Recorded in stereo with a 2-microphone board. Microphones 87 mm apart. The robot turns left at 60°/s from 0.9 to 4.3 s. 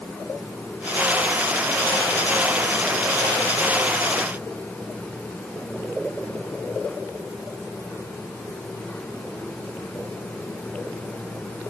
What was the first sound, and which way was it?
Only background noise.